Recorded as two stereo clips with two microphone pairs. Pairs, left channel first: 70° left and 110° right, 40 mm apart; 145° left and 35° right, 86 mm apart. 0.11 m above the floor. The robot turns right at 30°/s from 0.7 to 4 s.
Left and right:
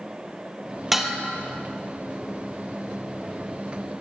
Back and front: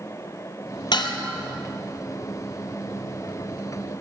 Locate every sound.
0.9 s dishes clattering: 160° left, 1.9 m; by 1.2 s 170° left, 1.9 m